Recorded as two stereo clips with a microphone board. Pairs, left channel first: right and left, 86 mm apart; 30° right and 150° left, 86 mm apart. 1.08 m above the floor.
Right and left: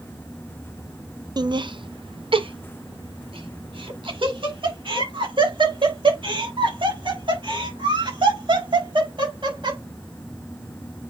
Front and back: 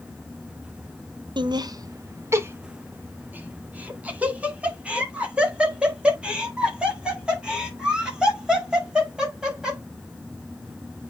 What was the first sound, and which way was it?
Laughter, 125° left.